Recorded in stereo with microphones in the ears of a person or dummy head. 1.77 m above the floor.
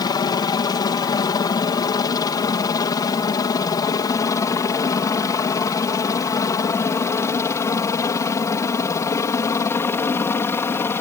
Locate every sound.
0.0 s a helicopter: 25° left (ahead or behind); by 11.0 s 15° left (ahead or behind)